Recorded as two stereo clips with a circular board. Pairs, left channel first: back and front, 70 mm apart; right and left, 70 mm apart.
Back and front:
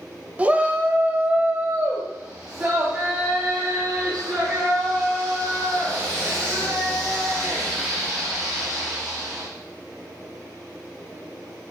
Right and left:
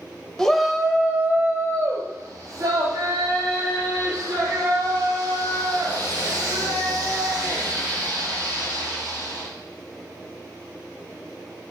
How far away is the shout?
About 1.0 m.